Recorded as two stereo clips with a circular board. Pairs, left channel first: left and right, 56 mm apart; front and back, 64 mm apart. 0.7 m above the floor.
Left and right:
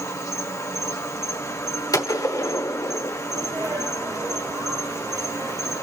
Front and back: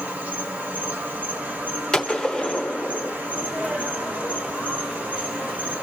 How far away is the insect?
About 1.2 m.